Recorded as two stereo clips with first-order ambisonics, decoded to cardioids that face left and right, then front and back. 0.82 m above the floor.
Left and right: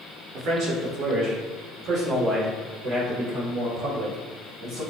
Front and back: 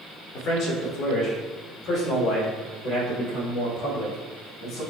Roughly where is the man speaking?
Ahead right.